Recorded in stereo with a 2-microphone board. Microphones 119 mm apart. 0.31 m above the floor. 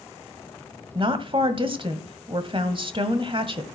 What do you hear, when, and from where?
0.9 s a woman speaking: 45° right (ahead or behind), 1.7 m